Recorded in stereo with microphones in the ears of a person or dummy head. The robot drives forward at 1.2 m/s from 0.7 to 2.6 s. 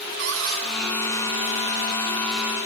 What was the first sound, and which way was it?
A cupboard door, 65° right (ahead or behind).